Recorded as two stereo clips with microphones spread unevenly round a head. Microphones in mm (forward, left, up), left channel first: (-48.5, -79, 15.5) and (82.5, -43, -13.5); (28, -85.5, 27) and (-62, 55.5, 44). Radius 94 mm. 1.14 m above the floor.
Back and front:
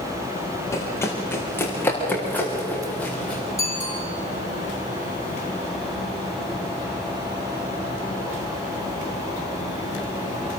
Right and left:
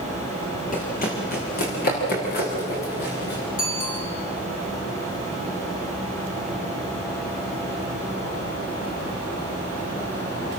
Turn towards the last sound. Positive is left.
turn(degrees=-95)